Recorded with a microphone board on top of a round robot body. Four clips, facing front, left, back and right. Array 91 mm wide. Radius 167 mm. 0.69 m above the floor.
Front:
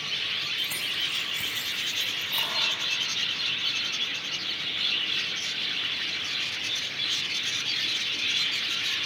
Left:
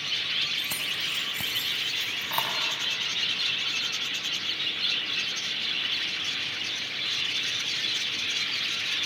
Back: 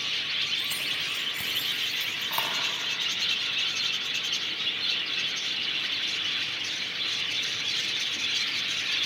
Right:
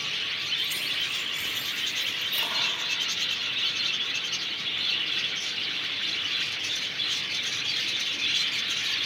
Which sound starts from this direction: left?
Keys jangling, at 0.6 s.